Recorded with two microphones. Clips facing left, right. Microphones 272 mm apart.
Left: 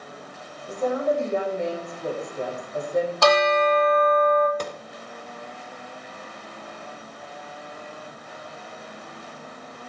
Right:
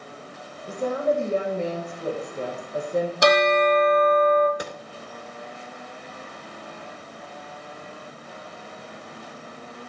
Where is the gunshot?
10° right (ahead or behind), 1.3 m.